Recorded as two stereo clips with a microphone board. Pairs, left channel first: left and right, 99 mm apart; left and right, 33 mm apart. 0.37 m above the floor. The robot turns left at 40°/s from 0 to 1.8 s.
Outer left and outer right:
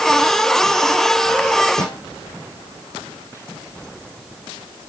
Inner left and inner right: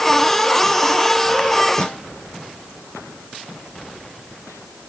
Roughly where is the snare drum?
Left.